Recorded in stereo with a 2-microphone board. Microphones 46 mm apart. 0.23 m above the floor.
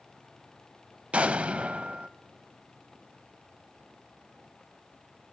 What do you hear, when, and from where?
1.1 s an explosion: 30° right (ahead or behind), 0.5 m